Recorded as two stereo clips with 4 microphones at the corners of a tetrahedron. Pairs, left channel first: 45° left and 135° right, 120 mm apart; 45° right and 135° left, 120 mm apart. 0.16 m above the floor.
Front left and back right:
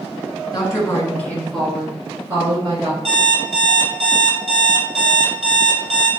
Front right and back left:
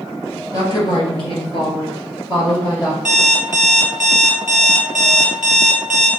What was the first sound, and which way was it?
A woman speaking, straight ahead.